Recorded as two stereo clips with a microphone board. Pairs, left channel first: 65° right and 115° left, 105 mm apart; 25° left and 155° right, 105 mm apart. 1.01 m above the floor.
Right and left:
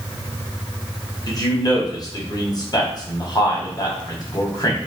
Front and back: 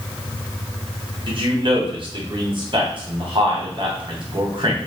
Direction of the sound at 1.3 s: 120° right.